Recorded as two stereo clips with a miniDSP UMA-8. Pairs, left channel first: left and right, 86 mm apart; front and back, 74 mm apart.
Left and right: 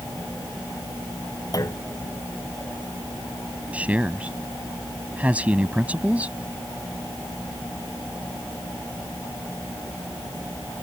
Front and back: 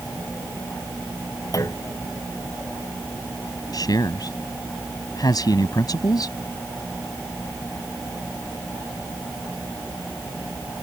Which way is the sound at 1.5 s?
40° left.